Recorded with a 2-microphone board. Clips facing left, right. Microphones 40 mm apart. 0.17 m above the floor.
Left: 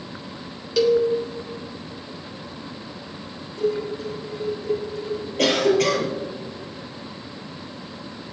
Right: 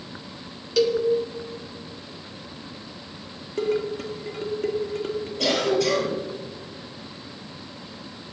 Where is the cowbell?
5° left (ahead or behind), 1.3 m.